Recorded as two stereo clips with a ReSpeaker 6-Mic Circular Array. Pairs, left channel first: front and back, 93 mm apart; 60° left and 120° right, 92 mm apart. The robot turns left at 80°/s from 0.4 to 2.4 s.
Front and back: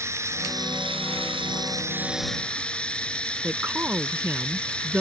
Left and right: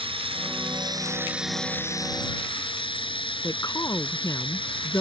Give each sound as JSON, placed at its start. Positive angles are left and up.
{"t": 0.0, "sound": "running water", "azimuth_deg": -120}
{"t": 3.4, "sound": "a woman speaking", "azimuth_deg": 110}